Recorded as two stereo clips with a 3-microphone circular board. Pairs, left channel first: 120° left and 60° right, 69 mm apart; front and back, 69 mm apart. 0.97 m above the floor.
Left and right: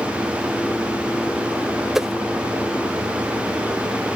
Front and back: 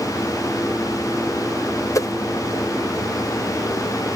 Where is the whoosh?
25° left.